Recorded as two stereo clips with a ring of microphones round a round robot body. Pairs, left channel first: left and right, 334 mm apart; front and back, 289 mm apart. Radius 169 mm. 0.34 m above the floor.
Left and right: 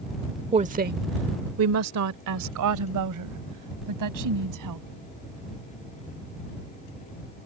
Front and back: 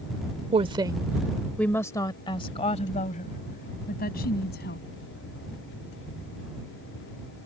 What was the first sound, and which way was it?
A woman speaking, 140° right.